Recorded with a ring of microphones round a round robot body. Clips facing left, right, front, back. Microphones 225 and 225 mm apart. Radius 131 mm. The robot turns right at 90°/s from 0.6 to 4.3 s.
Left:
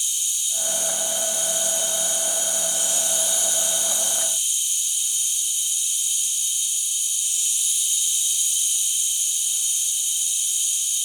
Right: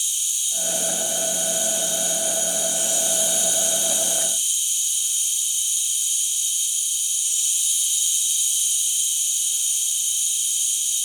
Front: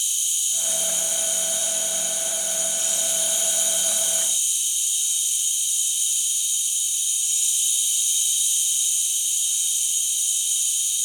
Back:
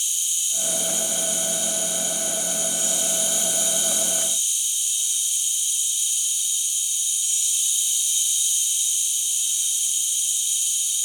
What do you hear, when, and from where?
0.0 s an insect: 35° right, 0.8 m; by 11.1 s 65° right, 0.8 m